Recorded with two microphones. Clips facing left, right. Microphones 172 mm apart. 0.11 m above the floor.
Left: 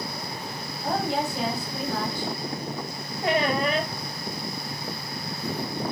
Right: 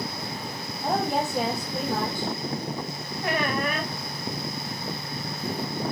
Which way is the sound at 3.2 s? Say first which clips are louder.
Left 3 dB; 25° left (ahead or behind).